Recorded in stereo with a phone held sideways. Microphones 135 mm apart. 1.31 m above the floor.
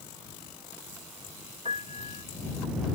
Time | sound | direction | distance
1.6 | a piano | 50° right (ahead or behind) | ?